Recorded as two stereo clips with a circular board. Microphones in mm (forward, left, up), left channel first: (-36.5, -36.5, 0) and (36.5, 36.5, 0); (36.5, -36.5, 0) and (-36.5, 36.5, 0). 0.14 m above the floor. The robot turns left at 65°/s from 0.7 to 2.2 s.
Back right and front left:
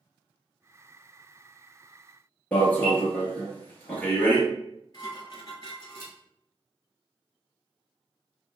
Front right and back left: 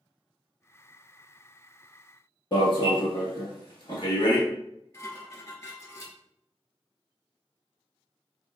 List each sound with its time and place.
2.5 s an alarm: 60° right, 1.5 m
4.9 s dishes clattering: 95° right, 1.7 m